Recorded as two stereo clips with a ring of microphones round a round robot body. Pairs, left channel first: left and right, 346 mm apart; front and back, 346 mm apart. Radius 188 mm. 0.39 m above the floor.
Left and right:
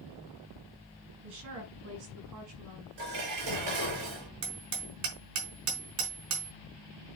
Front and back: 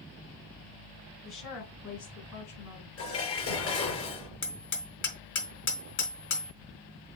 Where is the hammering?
55° right, 3.5 m.